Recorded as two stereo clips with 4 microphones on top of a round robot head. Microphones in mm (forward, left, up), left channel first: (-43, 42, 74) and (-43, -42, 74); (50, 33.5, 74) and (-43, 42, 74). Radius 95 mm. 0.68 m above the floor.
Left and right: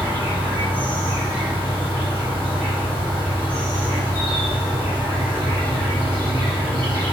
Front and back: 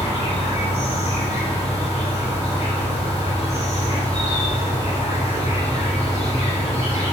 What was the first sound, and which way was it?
An insect, 20° right.